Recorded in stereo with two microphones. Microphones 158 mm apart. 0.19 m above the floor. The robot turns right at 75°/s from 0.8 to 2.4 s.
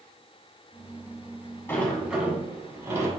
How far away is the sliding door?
About 1.1 m.